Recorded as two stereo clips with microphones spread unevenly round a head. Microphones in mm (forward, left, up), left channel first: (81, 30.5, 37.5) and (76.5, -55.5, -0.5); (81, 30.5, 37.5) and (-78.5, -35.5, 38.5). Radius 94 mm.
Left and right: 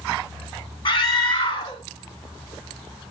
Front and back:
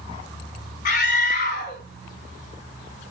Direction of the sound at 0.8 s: 65° left.